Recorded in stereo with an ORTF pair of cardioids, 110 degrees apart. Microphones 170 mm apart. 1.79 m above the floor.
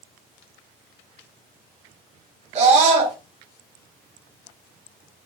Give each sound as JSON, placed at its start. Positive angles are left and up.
{"t": 2.5, "sound": "a scream", "azimuth_deg": -40, "distance_m": 1.3}